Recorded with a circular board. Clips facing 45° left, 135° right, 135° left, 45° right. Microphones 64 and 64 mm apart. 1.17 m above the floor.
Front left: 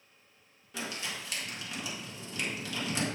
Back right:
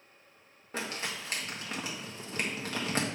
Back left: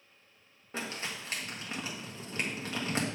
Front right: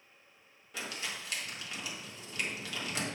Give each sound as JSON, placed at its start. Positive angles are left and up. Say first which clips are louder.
{"t": 0.7, "sound": "crumpling", "louder": "back right 2 dB, back left 2 dB", "azimuth_deg": -175, "distance_m": 1.6}